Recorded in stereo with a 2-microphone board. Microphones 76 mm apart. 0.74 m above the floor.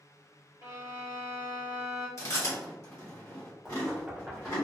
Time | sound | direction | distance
0.6 | a violin | 45° right (ahead or behind) | 1.1 m
2.2 | chewing | 40° left (ahead or behind) | 1.3 m
3.6 | knocking | 10° right (ahead or behind) | 0.7 m